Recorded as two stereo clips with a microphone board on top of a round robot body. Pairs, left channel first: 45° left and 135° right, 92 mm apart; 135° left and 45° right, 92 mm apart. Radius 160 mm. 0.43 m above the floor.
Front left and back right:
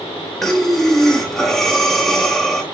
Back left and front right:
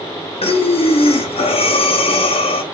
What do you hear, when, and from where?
0.4 s breathing: 130° left, 0.5 m